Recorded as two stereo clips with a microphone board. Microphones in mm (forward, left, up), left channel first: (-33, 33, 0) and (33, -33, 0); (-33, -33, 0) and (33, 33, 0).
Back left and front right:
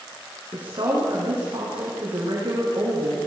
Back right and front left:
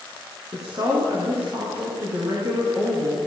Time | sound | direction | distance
0.5 | a woman speaking | 5° right | 8.5 m